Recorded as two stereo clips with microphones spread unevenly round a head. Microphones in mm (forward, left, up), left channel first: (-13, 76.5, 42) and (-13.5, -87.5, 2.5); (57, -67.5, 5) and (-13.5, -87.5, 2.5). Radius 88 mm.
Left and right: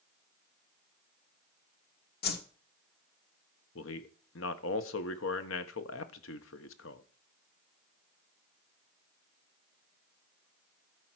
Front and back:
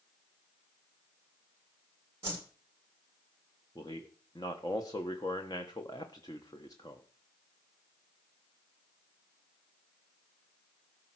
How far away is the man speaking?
About 1.2 m.